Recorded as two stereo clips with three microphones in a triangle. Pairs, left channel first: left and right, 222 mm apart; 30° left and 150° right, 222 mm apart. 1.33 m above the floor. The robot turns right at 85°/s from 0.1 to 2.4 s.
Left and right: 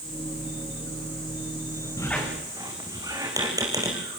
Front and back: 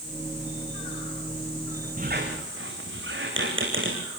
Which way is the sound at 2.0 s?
160° left.